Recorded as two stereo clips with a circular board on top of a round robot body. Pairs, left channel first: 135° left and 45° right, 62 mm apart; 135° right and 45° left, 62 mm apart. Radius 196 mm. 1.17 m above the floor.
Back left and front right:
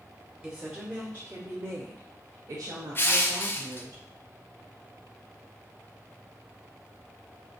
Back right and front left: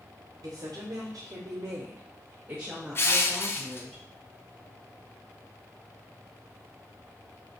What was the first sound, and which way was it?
A woman speaking, 35° left.